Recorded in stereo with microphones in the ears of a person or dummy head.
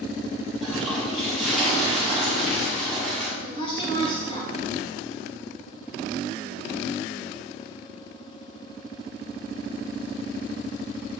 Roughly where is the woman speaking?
Left.